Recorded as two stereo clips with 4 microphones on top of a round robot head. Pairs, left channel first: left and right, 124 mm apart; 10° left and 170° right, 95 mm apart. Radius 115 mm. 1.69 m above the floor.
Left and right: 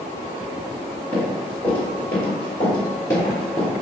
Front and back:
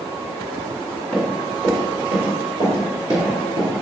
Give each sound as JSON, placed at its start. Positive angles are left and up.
{"t": 1.1, "sound": "running footsteps", "azimuth_deg": 55, "distance_m": 1.7}